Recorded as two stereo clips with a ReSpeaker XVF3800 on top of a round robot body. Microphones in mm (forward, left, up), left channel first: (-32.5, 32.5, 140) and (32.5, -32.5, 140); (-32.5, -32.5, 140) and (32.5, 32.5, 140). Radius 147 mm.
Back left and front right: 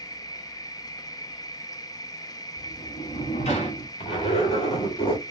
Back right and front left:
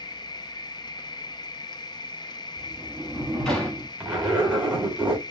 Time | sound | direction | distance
0.0 | an insect | 175° right | 0.7 m
2.6 | a sliding door | 140° left | 1.3 m
4.0 | a zipper | 120° left | 2 m